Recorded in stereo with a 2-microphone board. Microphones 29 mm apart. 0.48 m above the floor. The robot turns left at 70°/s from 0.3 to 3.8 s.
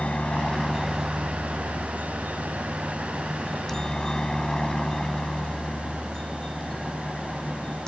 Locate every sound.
0.0 s a helicopter: 40° left; by 7.9 s 155° left